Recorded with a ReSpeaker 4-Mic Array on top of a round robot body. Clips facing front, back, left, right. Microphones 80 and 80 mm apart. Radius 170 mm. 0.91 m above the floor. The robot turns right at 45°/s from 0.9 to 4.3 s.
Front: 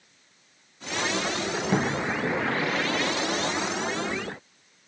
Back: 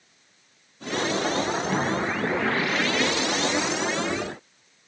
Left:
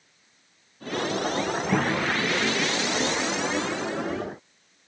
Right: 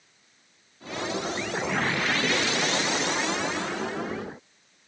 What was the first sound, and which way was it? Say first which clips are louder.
A cupboard door: front 2 dB, left 2 dB; 65° left.